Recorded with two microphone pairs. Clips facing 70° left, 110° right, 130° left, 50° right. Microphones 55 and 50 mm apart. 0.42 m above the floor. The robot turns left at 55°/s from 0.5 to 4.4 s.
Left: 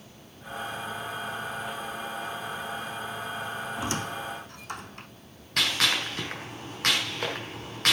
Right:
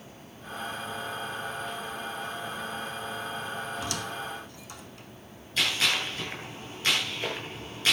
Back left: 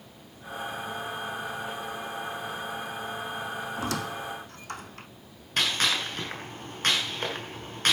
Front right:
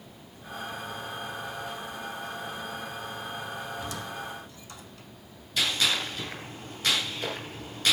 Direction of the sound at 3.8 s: 135° left.